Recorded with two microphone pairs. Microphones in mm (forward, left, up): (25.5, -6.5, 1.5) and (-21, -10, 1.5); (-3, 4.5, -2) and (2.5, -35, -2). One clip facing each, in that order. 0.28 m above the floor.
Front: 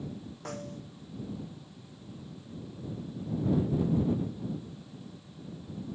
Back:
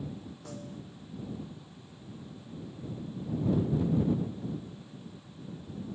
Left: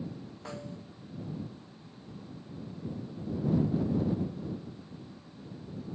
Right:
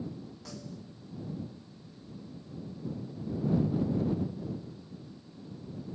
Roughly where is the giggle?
No giggle in this recording.